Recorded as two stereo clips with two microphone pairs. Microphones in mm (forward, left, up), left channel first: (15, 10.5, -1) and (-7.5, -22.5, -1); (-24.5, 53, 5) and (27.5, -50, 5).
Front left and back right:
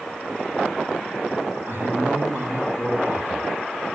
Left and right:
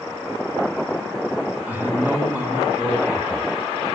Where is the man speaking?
135° right, 2.5 m.